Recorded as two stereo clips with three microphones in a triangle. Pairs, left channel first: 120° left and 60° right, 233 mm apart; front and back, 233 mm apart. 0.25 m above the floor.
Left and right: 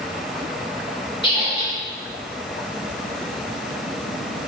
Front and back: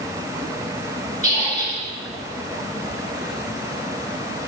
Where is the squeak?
55° left, 3 m.